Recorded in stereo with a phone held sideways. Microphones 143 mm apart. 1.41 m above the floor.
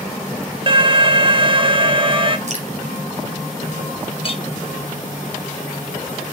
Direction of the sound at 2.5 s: 50° right (ahead or behind).